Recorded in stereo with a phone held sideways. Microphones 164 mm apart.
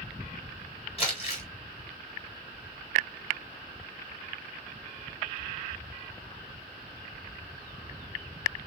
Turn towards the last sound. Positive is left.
turn(degrees=40)  # may be behind; listen again after turning